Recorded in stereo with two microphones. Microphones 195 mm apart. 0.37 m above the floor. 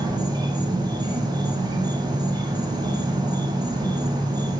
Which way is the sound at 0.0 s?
20° right (ahead or behind).